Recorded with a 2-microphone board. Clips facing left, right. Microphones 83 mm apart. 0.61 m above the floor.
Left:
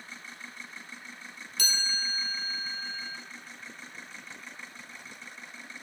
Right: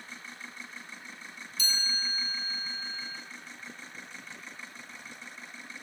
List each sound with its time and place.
1.6 s a chime: 65° left (ahead or behind), 1.5 m